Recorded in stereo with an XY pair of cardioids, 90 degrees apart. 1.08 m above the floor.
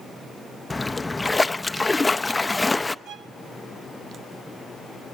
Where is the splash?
20° left, 0.6 m.